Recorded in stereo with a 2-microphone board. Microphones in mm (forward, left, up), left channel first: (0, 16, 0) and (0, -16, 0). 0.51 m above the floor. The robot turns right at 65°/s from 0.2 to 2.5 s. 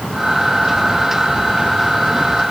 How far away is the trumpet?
I don't hear a trumpet.